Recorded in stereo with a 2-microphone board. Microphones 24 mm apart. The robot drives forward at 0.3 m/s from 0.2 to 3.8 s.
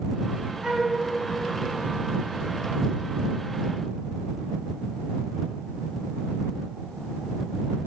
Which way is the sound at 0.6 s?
35° right (ahead or behind).